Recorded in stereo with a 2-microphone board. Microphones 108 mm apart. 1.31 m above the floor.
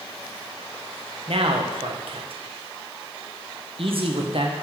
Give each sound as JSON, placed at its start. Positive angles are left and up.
{"t": 1.3, "sound": "a man speaking", "side_deg": -60, "distance_m": 1.1}